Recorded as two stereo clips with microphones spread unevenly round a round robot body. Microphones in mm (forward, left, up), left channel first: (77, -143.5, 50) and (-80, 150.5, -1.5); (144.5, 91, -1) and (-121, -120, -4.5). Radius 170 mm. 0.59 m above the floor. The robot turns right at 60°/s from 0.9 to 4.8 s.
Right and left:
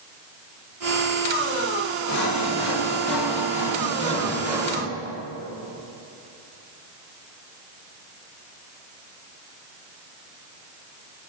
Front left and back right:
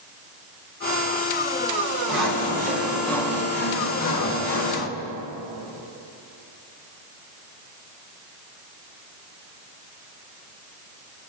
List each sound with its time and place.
2.1 s sawing: 110° right, 2.5 m; by 4.9 s 55° left, 2.5 m